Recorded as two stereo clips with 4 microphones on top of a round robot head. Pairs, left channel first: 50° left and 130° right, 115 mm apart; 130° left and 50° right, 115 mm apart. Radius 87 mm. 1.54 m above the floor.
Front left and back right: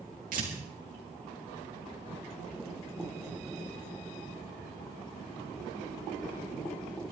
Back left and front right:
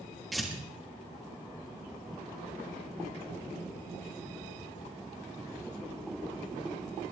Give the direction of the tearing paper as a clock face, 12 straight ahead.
5 o'clock.